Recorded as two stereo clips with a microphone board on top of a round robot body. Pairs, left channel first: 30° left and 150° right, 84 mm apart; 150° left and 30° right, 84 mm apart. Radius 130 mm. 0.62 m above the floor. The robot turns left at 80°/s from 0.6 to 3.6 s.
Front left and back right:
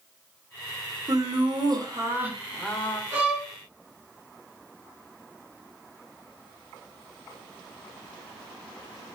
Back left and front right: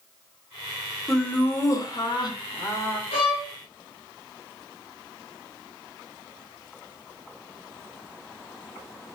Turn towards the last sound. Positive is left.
turn(degrees=105)